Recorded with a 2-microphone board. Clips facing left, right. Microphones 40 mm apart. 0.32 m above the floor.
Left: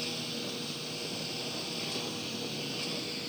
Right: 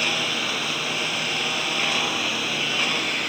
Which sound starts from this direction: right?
A lawn mower, at 0.0 s.